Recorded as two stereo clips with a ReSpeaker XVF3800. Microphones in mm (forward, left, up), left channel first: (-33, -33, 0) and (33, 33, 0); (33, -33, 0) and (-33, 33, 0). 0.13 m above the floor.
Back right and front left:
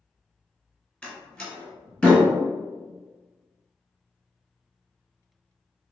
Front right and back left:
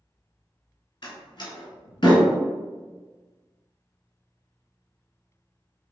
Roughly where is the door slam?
Ahead right.